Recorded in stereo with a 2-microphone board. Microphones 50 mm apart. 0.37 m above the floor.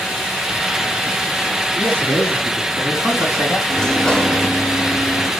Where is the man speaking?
25° left (ahead or behind), 5 m; by 3.6 s 35° left (ahead or behind), 2.5 m.